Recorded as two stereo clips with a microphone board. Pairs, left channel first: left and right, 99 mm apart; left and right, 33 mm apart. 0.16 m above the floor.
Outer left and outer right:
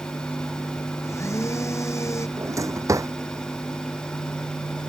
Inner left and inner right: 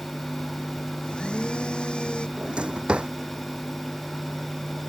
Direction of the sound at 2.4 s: 30° right (ahead or behind).